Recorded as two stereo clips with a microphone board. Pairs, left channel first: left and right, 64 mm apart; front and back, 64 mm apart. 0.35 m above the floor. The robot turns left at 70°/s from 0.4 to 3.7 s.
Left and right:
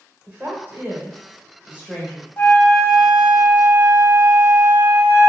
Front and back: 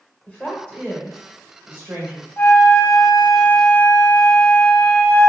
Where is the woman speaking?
50° right, 1.2 m; by 2.3 s straight behind, 1.2 m.